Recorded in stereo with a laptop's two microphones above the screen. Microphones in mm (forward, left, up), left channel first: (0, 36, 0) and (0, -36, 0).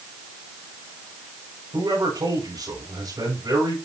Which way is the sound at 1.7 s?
65° right (ahead or behind).